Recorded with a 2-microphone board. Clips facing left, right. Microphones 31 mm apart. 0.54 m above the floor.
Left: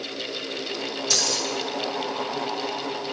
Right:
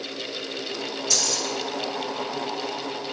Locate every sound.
1.1 s keys jangling: 45° left (ahead or behind), 1.0 m